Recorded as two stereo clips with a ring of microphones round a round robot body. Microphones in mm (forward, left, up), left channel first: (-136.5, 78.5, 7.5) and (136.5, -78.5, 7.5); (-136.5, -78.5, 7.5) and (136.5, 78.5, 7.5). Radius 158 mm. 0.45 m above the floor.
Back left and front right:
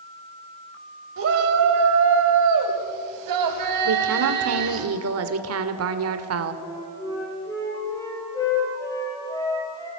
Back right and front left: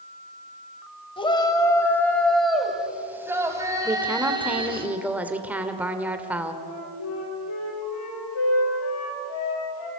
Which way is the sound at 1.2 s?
75° right.